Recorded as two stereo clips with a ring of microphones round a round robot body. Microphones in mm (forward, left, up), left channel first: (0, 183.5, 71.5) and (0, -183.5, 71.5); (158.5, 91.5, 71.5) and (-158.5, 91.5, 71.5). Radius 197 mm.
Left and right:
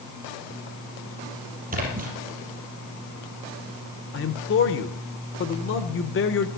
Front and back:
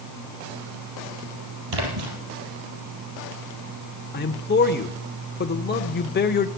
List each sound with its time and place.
1.7 s a splash: 160° right, 4 m
4.1 s a man speaking: 45° left, 1.1 m